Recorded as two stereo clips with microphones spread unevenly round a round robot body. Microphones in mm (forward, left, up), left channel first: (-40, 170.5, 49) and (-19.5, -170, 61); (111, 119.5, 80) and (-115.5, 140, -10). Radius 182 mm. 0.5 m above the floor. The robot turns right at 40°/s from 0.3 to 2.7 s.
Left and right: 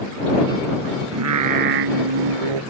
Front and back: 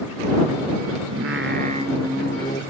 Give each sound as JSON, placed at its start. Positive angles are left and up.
{"t": 1.1, "sound": "singing", "azimuth_deg": -135}